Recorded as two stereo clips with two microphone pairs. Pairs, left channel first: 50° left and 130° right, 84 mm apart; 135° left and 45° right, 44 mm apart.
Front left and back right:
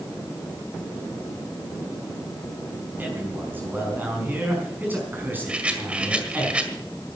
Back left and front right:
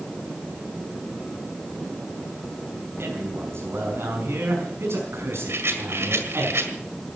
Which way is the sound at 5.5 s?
55° right.